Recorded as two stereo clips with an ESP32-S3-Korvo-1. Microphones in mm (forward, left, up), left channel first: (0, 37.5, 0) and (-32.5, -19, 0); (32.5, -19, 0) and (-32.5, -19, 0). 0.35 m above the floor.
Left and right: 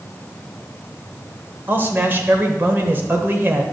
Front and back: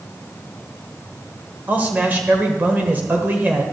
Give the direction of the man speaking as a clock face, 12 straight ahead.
5 o'clock.